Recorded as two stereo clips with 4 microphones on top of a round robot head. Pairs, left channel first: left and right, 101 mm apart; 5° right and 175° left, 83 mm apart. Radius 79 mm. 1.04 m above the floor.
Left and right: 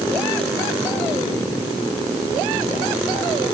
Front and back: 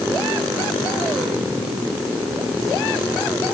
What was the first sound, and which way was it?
Only background noise.